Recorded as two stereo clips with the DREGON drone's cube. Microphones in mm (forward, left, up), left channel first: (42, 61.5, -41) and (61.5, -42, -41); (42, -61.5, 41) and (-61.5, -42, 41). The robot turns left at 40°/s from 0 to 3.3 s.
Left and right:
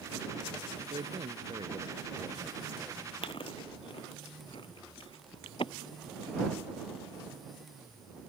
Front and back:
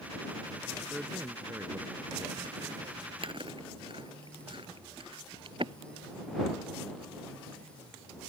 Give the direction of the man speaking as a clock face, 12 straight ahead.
3 o'clock.